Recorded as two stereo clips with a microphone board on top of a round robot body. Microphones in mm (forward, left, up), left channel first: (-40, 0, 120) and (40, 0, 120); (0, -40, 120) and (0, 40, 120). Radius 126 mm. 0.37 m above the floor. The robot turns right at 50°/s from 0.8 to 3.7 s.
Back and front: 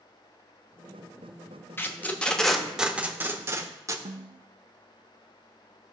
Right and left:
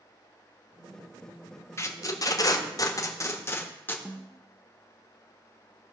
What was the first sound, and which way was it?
Tape being pulled, 130° right.